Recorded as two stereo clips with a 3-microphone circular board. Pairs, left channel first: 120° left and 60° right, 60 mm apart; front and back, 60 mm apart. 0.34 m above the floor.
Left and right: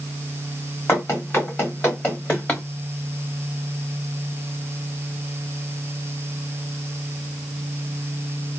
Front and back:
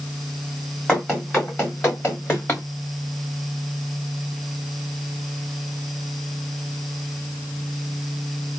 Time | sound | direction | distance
0.9 | running footsteps | 75° left | 2.5 m